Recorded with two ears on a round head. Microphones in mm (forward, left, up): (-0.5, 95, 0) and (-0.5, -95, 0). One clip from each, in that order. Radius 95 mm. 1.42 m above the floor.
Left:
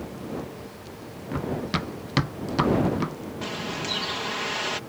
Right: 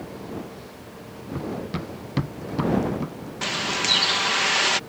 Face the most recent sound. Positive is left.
turn(degrees=-55)  # may be behind; listen again after turning